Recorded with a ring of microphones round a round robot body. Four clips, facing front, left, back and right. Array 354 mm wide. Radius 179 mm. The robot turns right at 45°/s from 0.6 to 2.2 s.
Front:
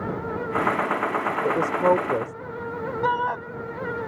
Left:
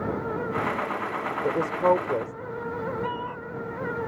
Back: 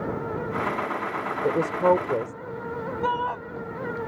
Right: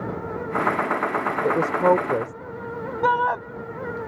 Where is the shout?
85° right.